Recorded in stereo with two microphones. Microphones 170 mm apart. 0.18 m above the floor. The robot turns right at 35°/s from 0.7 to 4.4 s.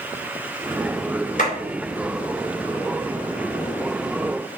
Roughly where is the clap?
Left.